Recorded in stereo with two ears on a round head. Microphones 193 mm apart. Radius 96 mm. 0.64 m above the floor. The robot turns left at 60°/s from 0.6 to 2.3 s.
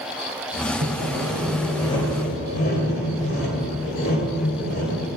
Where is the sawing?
135° right, 2 m; by 5.1 s 135° left, 2 m.